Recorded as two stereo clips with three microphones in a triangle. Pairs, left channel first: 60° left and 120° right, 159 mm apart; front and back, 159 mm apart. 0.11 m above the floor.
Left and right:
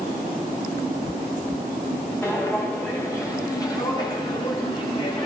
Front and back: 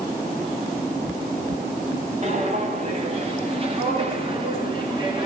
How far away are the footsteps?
About 8.5 m.